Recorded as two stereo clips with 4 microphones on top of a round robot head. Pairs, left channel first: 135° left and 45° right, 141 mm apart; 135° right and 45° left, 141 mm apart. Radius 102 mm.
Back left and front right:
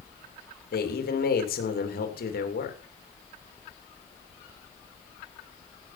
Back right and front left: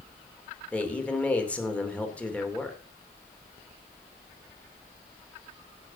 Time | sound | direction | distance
0.7 | a man speaking | 145° left | 2.5 m